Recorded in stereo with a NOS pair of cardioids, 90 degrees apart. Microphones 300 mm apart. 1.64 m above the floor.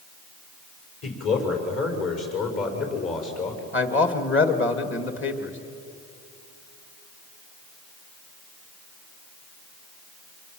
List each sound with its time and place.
1.0 s a man speaking: 50° left, 6.5 m; by 3.6 s 55° left, 8 m
3.7 s a man speaking: 40° left, 2.5 m